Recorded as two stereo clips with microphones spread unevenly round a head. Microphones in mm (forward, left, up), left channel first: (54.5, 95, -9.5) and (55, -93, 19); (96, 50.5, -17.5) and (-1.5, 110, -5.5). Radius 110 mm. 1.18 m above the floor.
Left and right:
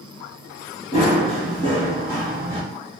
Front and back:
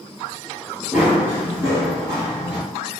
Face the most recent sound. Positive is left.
turn(degrees=170)